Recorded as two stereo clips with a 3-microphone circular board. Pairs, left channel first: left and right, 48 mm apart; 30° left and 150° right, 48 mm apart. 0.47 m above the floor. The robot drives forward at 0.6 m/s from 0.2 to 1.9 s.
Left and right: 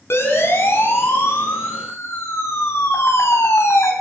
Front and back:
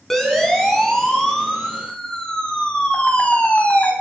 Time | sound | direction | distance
0.1 | a siren | 110° left | 5 m